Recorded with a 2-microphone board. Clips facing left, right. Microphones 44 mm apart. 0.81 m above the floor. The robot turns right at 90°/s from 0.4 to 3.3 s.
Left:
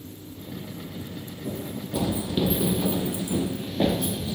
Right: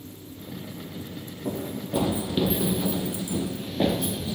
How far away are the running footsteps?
About 1.5 m.